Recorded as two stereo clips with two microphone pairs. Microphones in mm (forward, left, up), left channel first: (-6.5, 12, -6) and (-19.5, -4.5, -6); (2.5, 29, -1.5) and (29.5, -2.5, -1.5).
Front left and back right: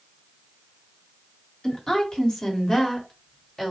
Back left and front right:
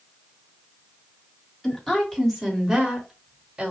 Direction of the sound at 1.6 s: 60° left.